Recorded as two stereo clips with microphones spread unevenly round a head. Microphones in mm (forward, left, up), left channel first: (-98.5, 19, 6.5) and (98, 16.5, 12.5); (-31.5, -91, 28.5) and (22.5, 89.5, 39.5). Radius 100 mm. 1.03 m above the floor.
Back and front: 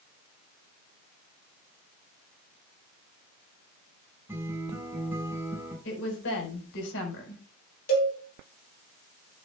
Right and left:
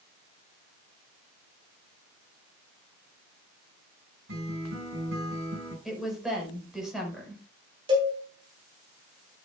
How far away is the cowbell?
About 3.5 m.